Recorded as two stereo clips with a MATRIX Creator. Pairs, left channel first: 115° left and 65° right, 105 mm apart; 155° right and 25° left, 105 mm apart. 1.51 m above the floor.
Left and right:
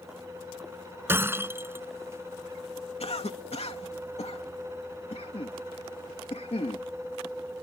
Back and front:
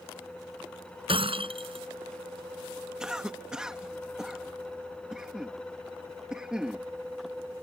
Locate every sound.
1.1 s breaking glass: straight ahead
3.0 s a cough: 105° left